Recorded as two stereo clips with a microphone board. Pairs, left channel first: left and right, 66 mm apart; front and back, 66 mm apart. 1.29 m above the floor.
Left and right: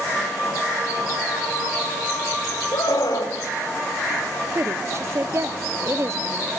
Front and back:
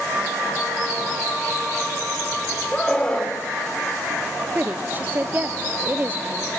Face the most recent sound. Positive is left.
turn(degrees=-120)